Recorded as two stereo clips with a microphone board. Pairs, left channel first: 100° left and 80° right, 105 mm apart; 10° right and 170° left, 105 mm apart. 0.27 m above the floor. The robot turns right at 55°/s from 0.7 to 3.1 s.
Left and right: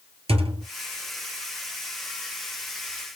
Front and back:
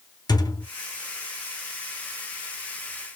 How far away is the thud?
About 0.7 m.